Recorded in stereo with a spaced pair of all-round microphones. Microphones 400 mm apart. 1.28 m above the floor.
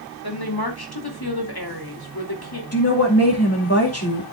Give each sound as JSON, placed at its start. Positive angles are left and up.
{"t": 0.2, "sound": "a woman speaking", "side_deg": 65, "distance_m": 2.5}
{"t": 2.7, "sound": "a woman speaking", "side_deg": 35, "distance_m": 2.5}